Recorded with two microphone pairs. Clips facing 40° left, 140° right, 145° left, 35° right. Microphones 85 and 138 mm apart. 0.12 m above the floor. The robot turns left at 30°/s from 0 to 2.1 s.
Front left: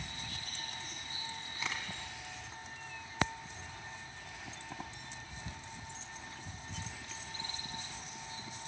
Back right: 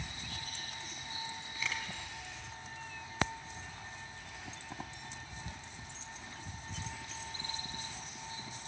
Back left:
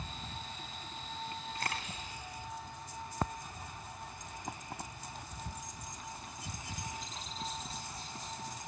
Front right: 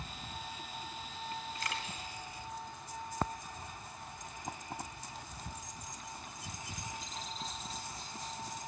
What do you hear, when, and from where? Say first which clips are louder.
1.6 s a camera shutter: back right 1 dB, back left 1 dB; 115° left, 3.5 m; by 1.9 s 105° left, 3.5 m